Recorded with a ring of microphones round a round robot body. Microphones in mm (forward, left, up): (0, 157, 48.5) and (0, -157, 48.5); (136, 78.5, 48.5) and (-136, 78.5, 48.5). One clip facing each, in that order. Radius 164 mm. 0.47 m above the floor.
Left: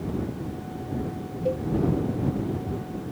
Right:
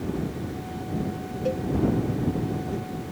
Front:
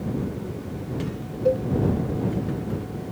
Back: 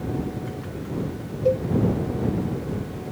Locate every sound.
1.4 s a cowbell: 95° right